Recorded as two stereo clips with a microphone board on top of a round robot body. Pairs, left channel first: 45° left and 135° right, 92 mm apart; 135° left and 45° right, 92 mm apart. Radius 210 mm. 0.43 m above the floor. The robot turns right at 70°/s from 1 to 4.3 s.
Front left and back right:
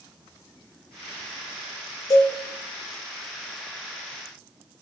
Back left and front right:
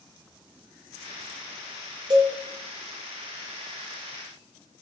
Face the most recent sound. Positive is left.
turn(degrees=150)